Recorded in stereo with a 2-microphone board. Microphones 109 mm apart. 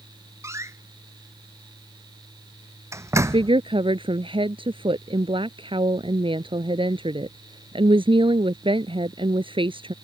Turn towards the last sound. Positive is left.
turn(degrees=-55)  # may be behind; listen again after turning